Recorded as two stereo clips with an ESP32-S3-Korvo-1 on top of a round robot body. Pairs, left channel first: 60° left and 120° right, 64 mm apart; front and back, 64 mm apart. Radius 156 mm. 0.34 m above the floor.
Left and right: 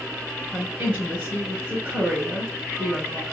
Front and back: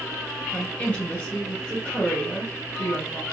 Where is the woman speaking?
55° right, 2 m.